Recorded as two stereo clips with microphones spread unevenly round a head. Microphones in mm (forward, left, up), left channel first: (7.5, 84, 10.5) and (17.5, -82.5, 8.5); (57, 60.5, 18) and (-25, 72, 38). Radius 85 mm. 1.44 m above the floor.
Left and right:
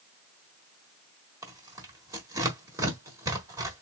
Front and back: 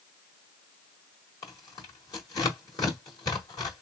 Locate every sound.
1.4 s tearing paper: 40° right, 1.2 m